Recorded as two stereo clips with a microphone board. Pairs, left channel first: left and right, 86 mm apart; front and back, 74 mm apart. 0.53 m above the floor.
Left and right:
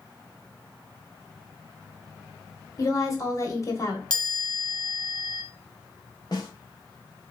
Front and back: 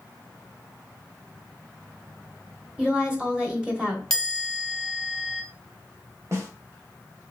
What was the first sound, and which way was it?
A woman speaking, 110° left.